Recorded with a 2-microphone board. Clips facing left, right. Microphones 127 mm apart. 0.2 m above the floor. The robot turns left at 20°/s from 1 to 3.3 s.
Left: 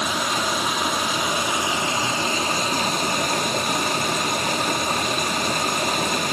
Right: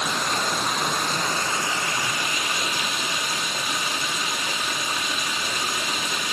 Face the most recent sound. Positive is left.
turn(degrees=130)